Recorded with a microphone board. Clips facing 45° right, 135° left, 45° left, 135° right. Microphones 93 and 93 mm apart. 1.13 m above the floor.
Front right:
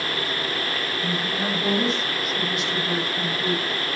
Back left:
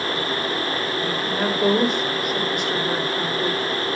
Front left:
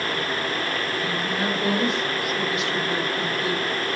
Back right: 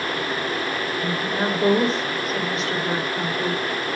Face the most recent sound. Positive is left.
turn(degrees=170)